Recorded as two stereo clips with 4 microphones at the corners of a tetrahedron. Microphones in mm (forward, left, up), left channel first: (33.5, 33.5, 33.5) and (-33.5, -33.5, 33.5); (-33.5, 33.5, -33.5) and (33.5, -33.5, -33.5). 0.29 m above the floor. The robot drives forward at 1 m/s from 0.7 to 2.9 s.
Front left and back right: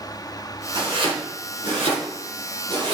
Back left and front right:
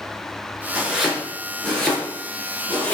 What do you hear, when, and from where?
0.8 s chopping: 125° right, 3 m; by 2.9 s 150° right, 4.5 m